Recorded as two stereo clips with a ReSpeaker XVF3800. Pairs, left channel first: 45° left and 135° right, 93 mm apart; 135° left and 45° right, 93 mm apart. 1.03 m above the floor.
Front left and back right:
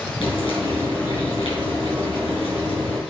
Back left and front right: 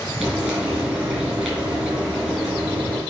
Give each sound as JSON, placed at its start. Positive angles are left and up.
{"t": 0.2, "sound": "frying", "azimuth_deg": 35, "distance_m": 3.5}